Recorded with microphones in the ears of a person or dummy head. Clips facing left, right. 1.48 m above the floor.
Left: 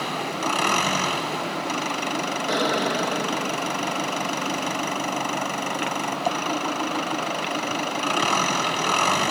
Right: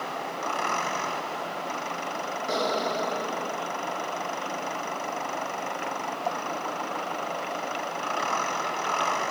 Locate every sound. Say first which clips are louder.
0.0 s an engine running: left 5 dB; 55° left (ahead or behind)
2.5 s an explosion: left 3 dB; 20° left (ahead or behind)